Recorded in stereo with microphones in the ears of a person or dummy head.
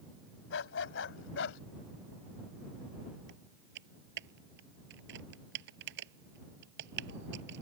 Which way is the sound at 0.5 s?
75° left (ahead or behind).